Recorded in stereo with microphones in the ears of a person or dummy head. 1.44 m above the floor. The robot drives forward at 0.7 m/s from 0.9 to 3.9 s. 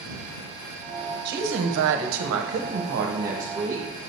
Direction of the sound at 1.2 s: 55° right (ahead or behind).